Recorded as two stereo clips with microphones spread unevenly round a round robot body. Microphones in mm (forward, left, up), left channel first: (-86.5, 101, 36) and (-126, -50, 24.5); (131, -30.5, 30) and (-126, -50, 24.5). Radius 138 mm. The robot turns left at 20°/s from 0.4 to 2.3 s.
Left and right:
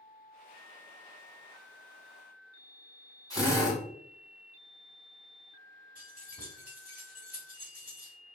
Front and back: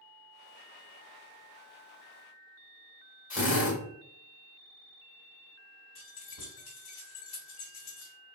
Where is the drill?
45° right, 1.7 m.